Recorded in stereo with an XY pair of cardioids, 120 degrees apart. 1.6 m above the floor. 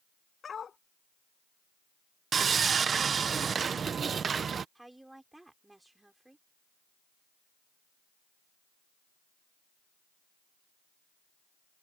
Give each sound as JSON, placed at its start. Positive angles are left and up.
{"t": 0.4, "sound": "a dog barking", "azimuth_deg": 35}
{"t": 2.3, "sound": "sawing", "azimuth_deg": -35}
{"t": 4.8, "sound": "a woman speaking", "azimuth_deg": -10}